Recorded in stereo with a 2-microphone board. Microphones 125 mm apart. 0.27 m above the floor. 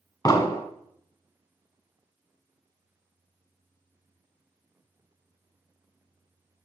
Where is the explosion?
30° left (ahead or behind), 0.7 m.